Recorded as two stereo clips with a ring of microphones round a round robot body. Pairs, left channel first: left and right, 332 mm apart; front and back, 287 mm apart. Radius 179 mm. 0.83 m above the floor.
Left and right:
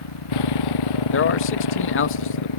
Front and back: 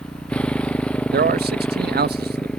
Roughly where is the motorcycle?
Left.